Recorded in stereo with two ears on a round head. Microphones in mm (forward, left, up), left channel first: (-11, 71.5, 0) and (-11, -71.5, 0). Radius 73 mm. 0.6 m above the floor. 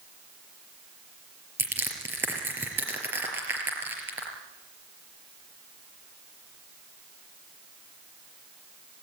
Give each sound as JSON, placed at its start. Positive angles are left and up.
{"t": 1.6, "sound": "crushing", "side_deg": -10, "distance_m": 4.0}